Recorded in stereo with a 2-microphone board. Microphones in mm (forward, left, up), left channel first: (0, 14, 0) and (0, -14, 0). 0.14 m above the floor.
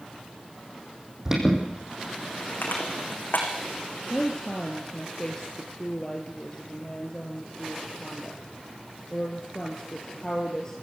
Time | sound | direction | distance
1.2 | an alarm | 20° right (ahead or behind) | 6 m
2.6 | crushing | 85° left | 6 m
4.1 | a woman speaking | 25° left (ahead or behind) | 2.5 m